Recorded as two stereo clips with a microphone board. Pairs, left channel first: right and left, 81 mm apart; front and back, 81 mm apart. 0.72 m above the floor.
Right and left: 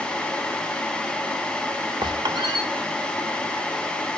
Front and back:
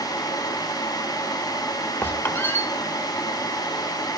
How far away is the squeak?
About 1.2 m.